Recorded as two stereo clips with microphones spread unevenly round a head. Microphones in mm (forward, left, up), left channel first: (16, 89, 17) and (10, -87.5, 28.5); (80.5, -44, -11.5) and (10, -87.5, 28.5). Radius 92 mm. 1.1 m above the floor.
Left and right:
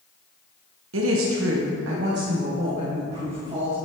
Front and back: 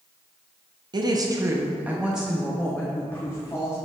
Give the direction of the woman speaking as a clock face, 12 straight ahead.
4 o'clock.